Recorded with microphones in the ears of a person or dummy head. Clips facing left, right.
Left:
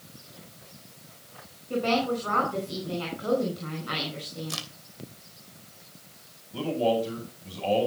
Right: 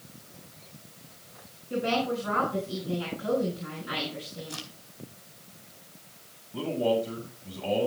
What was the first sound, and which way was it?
A woman speaking, 65° left (ahead or behind).